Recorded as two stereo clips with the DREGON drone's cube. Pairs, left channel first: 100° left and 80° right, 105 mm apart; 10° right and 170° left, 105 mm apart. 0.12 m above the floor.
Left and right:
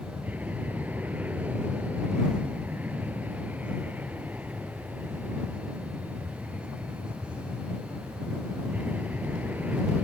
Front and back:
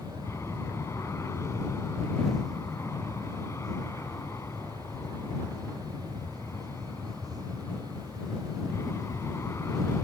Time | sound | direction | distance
0.0 | an aircraft | 25° right | ?